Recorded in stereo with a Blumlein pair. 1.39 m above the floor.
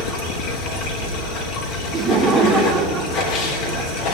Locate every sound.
0.0 s running water: 35° left, 3.5 m
1.9 s laughter: 20° right, 2.5 m